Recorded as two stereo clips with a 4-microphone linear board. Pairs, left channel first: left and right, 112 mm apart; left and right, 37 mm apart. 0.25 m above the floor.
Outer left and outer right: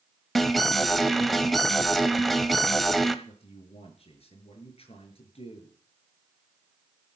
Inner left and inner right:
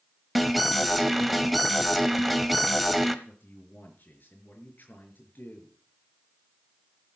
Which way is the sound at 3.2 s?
60° left (ahead or behind).